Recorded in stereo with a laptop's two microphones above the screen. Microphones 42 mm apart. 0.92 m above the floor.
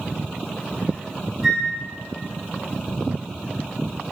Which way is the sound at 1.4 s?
15° right (ahead or behind).